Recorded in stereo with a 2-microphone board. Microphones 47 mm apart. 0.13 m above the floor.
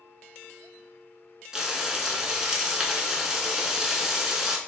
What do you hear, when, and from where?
1.5 s frying: 10° right (ahead or behind), 0.6 m